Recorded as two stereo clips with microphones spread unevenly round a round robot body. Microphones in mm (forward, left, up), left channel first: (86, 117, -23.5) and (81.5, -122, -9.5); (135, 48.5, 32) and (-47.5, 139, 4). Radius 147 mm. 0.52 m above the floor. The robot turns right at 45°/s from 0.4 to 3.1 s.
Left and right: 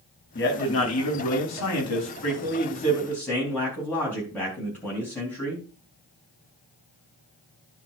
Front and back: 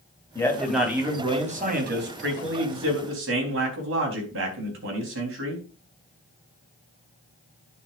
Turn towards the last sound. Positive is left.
turn(degrees=175)